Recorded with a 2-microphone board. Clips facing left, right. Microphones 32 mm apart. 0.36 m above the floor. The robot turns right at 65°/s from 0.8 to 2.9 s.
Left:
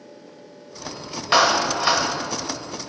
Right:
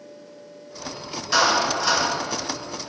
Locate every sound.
1.3 s a clap: 90° left, 0.9 m; by 2.1 s 140° left, 0.9 m